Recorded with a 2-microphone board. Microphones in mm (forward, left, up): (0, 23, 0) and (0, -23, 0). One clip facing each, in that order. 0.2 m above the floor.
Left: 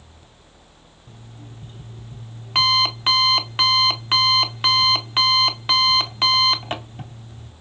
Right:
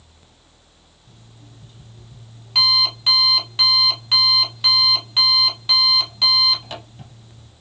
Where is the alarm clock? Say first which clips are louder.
Left 5 dB; 35° left (ahead or behind), 0.6 m.